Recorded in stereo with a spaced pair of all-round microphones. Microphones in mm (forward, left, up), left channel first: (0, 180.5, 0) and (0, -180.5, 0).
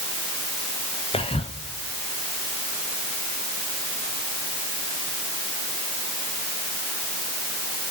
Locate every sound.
1.1 s whispering: 15° left (ahead or behind), 0.7 m